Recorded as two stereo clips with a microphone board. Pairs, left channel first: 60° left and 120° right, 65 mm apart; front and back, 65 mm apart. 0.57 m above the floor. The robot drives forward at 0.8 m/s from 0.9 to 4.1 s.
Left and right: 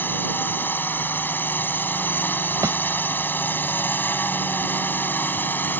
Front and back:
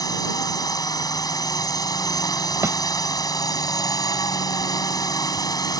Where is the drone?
Straight ahead.